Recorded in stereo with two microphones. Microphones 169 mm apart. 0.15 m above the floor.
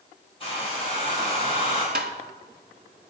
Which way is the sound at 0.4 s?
35° left (ahead or behind).